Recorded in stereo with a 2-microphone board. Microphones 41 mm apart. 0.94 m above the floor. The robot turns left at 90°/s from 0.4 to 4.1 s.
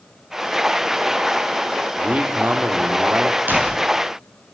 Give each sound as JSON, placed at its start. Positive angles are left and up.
{"t": 2.0, "sound": "a man speaking", "azimuth_deg": -25, "distance_m": 2.0}
{"t": 3.5, "sound": "a door slam", "azimuth_deg": -120, "distance_m": 7.5}